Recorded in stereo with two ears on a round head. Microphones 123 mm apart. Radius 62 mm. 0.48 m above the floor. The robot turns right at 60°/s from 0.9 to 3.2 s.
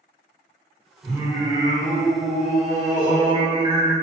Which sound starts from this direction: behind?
Singing, at 1.0 s.